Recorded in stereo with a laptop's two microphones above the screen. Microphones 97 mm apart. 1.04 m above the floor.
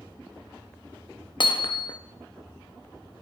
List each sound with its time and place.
1.4 s hammering: 55° left (ahead or behind), 0.6 m